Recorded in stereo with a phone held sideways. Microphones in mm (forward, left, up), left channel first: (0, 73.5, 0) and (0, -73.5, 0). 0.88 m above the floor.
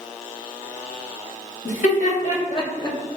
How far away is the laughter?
About 1.1 m.